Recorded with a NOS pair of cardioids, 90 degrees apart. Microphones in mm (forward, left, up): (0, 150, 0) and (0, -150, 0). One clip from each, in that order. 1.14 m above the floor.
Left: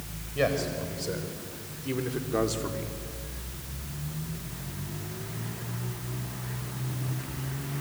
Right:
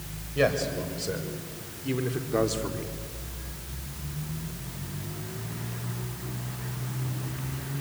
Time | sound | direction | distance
0.3 | a man speaking | 15° right | 5 m